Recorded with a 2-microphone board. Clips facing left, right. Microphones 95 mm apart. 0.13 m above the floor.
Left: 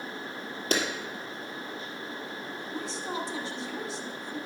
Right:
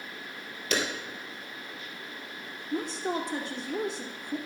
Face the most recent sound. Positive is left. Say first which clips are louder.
# right 5 dB
turn(degrees=-55)  # may be behind; listen again after turning